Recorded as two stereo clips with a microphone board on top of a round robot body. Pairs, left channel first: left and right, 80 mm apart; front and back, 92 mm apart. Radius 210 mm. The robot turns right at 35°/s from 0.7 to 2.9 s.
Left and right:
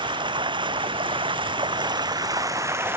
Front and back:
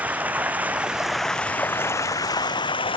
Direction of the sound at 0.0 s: 105° right.